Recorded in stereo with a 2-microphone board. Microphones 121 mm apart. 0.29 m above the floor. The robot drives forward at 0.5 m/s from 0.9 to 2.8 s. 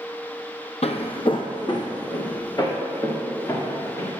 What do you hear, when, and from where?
0.8 s footsteps: 60° left (ahead or behind), 0.7 m; by 4.1 s 30° left (ahead or behind), 3 m